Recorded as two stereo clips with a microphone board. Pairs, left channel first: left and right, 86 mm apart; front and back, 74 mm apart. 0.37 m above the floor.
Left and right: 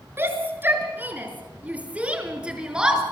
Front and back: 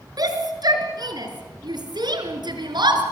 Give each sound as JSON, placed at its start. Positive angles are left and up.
{"t": 0.2, "sound": "a shout", "azimuth_deg": -150, "distance_m": 5.0}